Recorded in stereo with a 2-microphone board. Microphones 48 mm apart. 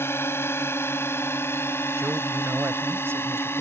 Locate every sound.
0.0 s a drone: 60° left (ahead or behind)
2.0 s a man speaking: 60° right (ahead or behind)